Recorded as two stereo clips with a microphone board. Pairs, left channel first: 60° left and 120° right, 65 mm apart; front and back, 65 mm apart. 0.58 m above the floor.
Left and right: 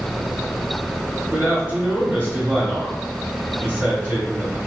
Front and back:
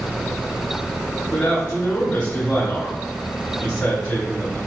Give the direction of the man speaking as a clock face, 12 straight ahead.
2 o'clock.